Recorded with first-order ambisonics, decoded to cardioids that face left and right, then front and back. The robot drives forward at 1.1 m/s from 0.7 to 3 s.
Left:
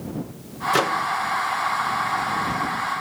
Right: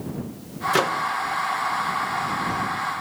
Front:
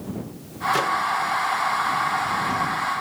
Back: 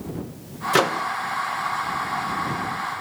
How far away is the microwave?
About 0.6 m.